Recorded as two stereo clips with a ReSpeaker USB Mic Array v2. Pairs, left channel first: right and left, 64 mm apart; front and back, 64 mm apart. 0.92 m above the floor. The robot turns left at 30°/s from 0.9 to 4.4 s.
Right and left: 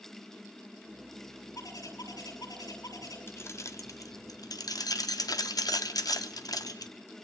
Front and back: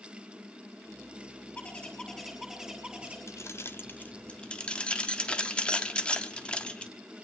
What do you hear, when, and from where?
1.6 s a bird: 60° right, 7.5 m; by 3.2 s 110° right, 7.5 m
3.3 s keys jangling: 40° right, 0.9 m; by 6.9 s 75° right, 0.9 m